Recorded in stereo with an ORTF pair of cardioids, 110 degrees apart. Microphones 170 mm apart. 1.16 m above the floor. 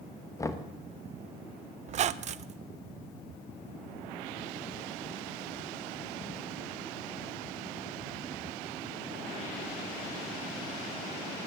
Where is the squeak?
45° right, 0.5 m.